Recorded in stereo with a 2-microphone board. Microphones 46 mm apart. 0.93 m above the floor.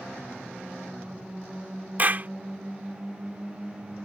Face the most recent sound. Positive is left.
turn(degrees=-35)  # may be behind; listen again after turning